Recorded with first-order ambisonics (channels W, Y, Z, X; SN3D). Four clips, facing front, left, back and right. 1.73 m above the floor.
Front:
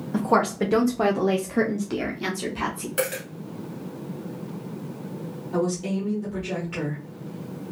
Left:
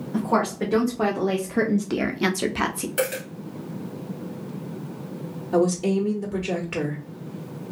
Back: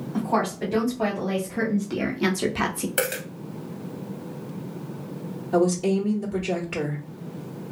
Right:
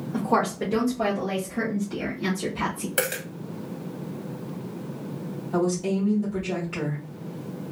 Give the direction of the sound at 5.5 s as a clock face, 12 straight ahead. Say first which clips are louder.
Left 4 dB, back 5 dB; 8 o'clock.